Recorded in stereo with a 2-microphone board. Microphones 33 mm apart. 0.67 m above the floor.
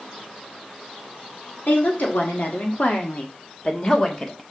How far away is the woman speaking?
About 2 m.